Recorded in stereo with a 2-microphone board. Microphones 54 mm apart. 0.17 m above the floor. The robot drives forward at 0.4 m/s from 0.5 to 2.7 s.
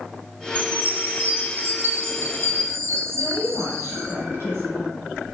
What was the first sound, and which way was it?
A chime, 30° right (ahead or behind).